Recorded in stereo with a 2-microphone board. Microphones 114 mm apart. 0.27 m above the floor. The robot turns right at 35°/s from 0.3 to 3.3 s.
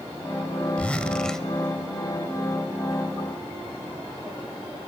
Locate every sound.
0.8 s a zipper: 10° left (ahead or behind), 1.5 m; by 1.5 s 5° left (ahead or behind), 1.5 m